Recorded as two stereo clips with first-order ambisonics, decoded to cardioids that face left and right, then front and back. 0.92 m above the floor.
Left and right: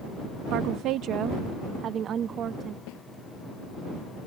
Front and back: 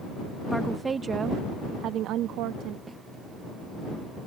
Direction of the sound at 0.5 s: 85° right.